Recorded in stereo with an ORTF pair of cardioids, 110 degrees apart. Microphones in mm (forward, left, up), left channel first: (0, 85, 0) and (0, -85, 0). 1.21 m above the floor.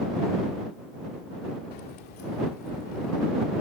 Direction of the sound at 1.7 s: 70° left.